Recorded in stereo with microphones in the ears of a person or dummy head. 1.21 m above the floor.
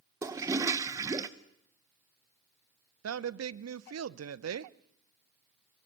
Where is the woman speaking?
80° right, 0.7 m.